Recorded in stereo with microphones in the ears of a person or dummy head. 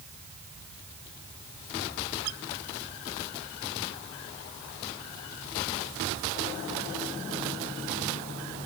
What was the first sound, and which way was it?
Only background noise.